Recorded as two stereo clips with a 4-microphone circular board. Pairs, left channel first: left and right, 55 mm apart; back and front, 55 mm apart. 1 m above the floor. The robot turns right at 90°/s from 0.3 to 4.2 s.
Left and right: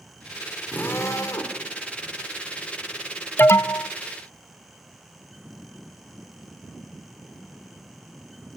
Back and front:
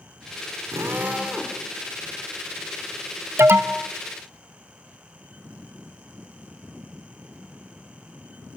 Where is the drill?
30° left, 3.5 m; by 1.6 s 105° left, 3.5 m.